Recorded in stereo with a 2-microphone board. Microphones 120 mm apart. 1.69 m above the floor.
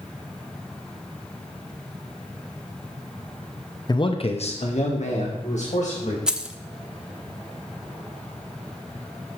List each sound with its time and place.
3.9 s a man speaking: 35° left (ahead or behind), 0.7 m; by 6.2 s 80° left, 2.5 m
6.3 s keys jangling: 5° right (ahead or behind), 0.6 m